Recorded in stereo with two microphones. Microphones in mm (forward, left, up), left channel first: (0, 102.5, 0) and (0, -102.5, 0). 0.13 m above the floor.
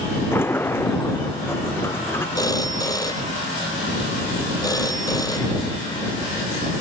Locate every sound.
0.3 s a sliding door: 10° left (ahead or behind)
2.4 s a phone ringing: 15° left (ahead or behind)